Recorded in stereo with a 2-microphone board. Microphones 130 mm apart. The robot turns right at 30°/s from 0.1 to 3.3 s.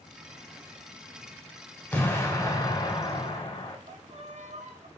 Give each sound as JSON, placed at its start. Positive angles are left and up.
{"t": 1.9, "sound": "an explosion", "azimuth_deg": 15, "distance_m": 1.0}
{"t": 3.9, "sound": "a violin", "side_deg": -60, "distance_m": 0.6}